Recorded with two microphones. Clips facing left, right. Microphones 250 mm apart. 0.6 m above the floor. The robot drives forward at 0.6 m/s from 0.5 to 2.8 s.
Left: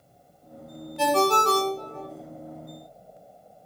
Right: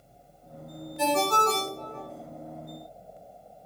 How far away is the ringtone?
About 0.8 m.